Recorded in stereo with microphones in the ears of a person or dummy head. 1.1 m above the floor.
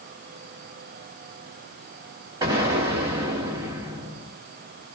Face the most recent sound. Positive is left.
turn(degrees=-30)  # may be behind; listen again after turning